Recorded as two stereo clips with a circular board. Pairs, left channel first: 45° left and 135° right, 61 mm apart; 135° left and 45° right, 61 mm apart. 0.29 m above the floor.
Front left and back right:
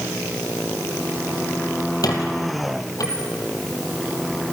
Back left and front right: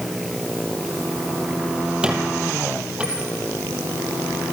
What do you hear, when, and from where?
2.0 s a squeak: 30° left, 3 m